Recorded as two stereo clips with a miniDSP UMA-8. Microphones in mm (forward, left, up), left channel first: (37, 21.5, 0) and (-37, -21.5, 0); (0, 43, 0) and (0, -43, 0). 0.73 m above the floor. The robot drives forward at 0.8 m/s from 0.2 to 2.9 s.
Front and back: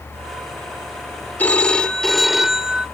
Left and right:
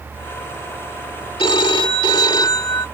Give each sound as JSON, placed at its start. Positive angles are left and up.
{"t": 1.4, "sound": "a phone ringing", "azimuth_deg": 100}